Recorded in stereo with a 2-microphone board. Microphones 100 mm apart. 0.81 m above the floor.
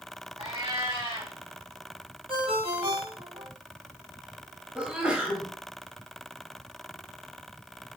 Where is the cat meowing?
70° right (ahead or behind), 2.5 m.